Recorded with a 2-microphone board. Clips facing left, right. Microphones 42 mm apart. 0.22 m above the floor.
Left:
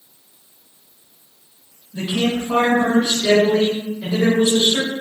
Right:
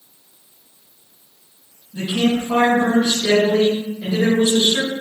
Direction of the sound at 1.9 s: 25° left (ahead or behind).